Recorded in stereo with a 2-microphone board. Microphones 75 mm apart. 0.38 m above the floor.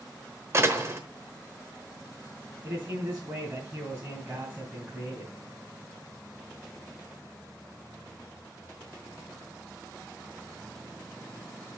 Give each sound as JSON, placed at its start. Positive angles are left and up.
{"t": 0.5, "sound": "a door slam", "side_deg": -35, "distance_m": 1.0}
{"t": 2.6, "sound": "a man speaking", "side_deg": -30, "distance_m": 3.0}